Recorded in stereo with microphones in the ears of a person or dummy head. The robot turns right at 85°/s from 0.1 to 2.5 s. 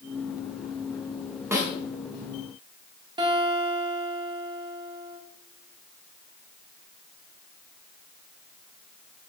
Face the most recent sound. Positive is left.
turn(degrees=-25)  # may be behind; listen again after turning